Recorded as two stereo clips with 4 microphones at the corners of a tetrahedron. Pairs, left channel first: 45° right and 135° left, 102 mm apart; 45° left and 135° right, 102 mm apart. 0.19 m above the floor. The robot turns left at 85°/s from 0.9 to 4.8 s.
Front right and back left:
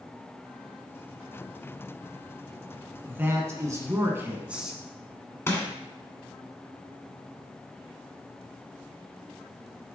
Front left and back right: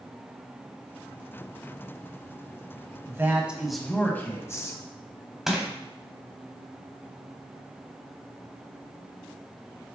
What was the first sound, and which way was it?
A man speaking, 165° right.